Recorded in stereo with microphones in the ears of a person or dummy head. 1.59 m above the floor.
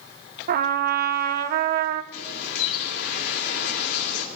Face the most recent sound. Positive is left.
turn(degrees=65)  # may be behind; listen again after turning